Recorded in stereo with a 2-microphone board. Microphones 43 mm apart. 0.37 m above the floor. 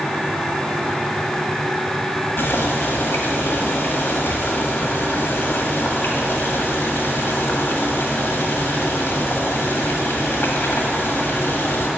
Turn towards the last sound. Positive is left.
turn(degrees=60)  # may be behind; listen again after turning